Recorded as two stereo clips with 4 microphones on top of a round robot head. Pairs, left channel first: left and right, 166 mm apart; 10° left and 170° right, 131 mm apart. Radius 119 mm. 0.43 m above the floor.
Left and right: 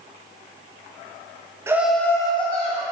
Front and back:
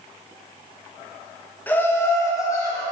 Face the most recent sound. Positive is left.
turn(degrees=70)